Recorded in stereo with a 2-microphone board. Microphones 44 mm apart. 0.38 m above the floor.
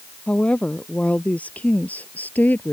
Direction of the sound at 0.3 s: 25° left (ahead or behind).